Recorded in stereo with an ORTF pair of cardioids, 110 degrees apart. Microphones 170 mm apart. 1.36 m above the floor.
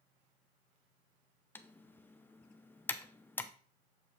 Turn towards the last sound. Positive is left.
turn(degrees=10)